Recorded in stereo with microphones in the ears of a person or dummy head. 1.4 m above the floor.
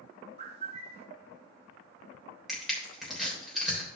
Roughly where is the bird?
Right.